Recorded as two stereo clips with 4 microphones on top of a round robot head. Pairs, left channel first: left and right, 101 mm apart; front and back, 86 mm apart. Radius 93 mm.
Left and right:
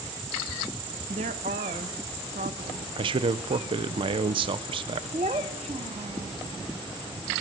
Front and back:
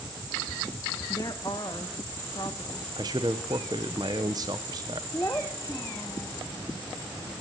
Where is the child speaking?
70° right, 0.6 m.